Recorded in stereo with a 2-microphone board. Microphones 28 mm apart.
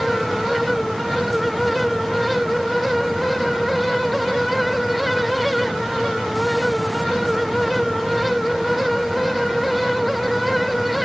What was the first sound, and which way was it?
Only background noise.